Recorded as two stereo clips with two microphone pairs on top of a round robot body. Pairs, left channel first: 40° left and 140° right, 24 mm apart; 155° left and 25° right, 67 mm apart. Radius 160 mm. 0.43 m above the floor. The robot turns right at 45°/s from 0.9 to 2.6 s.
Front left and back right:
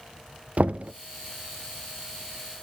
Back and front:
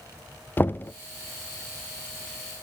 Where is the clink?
I don't hear a clink.